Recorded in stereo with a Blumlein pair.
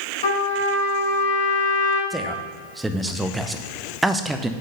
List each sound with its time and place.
0.2 s a trumpet: 60° left, 3 m
2.1 s a man speaking: 5° right, 0.7 m